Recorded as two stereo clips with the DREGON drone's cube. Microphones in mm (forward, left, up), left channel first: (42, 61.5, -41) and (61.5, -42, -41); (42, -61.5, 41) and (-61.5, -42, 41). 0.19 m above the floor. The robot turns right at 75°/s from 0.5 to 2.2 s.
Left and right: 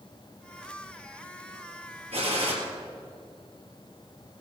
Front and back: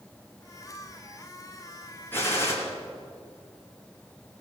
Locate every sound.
2.1 s a gunshot: 85° right, 3.5 m; by 2.5 s 75° right, 3.5 m